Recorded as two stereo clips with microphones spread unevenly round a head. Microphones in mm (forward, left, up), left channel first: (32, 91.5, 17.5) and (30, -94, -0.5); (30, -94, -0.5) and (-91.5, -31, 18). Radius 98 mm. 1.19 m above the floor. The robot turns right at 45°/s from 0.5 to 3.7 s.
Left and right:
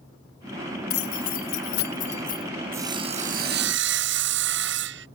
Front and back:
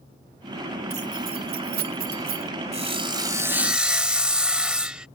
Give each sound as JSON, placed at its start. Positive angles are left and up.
{"t": 0.9, "sound": "keys jangling", "azimuth_deg": 90}
{"t": 2.7, "sound": "sawing", "azimuth_deg": -170}